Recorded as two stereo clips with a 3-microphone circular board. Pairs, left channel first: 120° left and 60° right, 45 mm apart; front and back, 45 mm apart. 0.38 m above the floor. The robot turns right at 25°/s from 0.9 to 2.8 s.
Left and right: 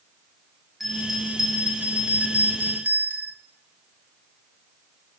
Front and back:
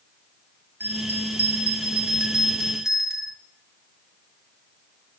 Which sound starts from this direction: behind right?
A bell, at 0.8 s.